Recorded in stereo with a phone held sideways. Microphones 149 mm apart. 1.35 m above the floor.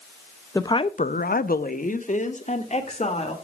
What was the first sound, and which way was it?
A woman speaking, 20° left (ahead or behind).